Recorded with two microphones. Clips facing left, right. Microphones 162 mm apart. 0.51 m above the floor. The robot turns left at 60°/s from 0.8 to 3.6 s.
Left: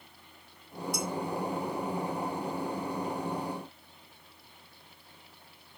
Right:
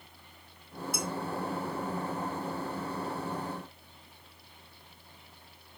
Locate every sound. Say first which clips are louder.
0.9 s dishes clattering: left 2 dB; centre (ahead or behind), 2.5 m; by 1.1 s 10° right (ahead or behind), 2.5 m